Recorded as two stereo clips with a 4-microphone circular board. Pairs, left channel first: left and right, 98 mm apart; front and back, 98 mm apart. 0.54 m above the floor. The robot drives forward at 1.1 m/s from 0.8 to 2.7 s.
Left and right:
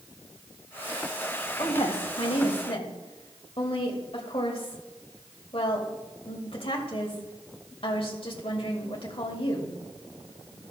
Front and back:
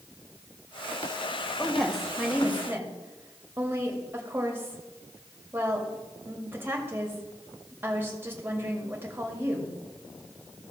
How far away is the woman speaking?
About 2 m.